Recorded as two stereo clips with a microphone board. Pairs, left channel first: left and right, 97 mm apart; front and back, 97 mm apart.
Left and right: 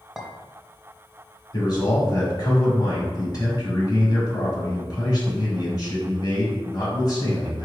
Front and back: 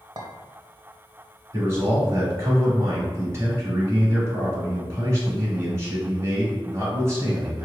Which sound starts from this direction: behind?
A clink, at 0.2 s.